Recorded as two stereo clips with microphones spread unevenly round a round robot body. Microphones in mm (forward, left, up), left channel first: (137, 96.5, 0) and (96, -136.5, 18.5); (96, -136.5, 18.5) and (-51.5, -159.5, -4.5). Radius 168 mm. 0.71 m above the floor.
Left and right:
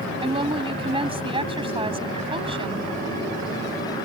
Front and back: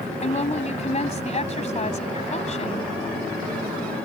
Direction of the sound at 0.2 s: 35° right.